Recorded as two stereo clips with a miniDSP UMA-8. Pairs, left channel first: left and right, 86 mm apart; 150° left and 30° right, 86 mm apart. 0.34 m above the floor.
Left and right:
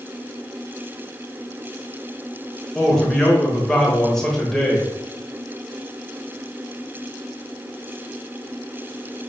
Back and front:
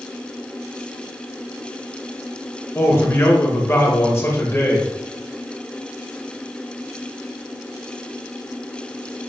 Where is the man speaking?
170° left, 1.2 m.